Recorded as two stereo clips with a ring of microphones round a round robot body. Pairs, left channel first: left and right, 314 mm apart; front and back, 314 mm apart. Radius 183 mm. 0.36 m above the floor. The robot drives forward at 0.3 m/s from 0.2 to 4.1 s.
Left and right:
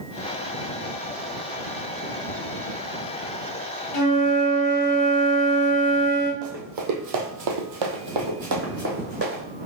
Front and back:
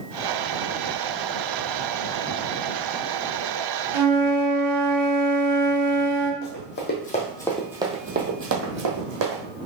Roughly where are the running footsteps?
Ahead right.